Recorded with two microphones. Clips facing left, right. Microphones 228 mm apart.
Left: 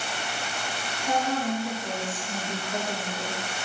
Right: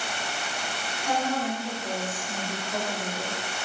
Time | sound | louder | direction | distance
1.0 | a woman speaking | left 1 dB | centre (ahead or behind) | 1.5 m